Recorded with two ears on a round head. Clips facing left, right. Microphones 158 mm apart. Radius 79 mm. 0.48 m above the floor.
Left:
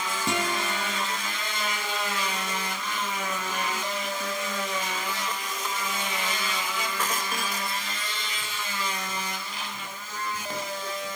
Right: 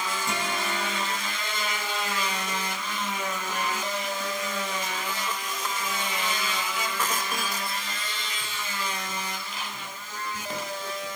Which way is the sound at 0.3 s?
50° left (ahead or behind).